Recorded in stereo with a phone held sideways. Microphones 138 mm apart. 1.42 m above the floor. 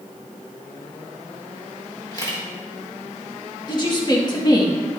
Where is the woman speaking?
30° left (ahead or behind), 1.8 m.